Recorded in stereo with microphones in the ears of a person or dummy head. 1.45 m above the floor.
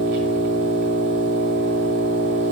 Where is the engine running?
30° right (ahead or behind), 1.3 m.